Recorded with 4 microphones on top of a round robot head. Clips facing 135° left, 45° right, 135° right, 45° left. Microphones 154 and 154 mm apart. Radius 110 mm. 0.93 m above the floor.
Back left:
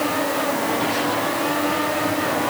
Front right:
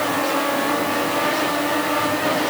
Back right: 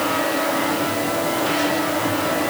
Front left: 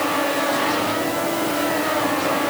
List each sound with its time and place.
Only background noise.